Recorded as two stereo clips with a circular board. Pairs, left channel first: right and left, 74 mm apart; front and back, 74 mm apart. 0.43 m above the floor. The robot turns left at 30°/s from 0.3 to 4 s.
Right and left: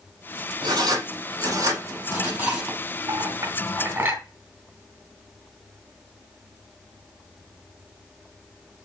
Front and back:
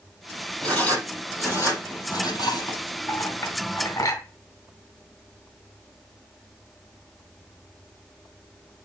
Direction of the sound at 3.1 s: 55° left.